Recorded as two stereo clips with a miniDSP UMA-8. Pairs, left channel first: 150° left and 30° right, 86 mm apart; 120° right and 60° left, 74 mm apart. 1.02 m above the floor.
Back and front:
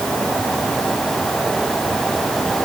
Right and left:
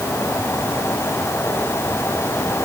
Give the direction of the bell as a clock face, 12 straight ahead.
No bell in this recording.